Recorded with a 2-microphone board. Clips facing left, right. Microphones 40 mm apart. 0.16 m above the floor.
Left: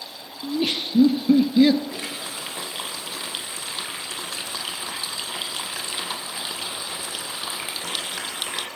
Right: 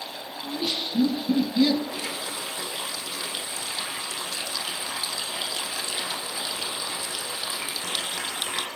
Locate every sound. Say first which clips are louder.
0.4 s laughter: left 5 dB; 60° left (ahead or behind), 3.5 m; by 1.8 s 30° left (ahead or behind), 2.5 m
1.9 s a running tap: even; 35° left (ahead or behind), 4 m